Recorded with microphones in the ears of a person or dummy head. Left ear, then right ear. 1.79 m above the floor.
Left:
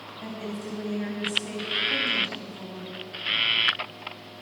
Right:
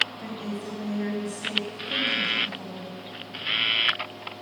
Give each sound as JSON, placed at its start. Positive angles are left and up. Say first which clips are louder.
{"t": 0.2, "sound": "a woman speaking", "louder": "right 1 dB", "side_deg": 0, "distance_m": 0.9}